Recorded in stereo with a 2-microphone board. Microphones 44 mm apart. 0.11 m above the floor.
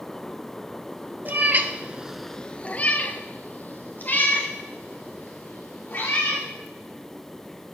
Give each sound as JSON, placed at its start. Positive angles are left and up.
{"t": 1.2, "sound": "a cat meowing", "side_deg": -40, "distance_m": 1.1}